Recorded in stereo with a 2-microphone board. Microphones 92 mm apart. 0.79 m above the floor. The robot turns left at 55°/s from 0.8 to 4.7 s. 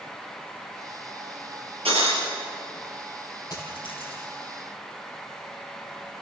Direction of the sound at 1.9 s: 75° right (ahead or behind).